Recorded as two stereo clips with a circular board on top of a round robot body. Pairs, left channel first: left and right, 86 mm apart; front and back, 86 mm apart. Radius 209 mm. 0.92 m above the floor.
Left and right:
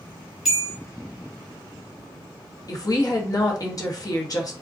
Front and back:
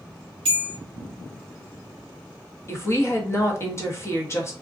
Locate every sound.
0.5 s a bell: 175° right, 0.6 m
2.7 s a woman speaking: 55° left, 0.9 m